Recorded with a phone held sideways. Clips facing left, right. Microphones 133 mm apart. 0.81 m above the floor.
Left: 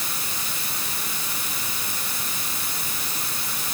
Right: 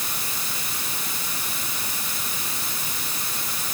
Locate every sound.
Only background noise.